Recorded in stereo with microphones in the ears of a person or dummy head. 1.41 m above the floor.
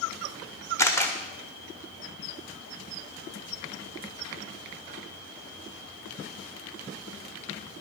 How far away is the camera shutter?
About 1.3 m.